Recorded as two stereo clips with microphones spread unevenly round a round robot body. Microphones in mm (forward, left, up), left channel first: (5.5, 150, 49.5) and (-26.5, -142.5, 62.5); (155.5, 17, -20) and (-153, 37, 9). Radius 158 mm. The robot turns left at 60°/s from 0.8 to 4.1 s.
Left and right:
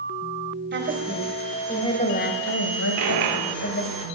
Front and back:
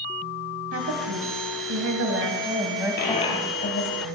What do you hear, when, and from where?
0.7 s a woman speaking: 140° right, 2.5 m; by 4.0 s 25° left, 2.5 m
3.0 s a dropped coin: 60° right, 2 m; by 4.0 s 130° right, 2 m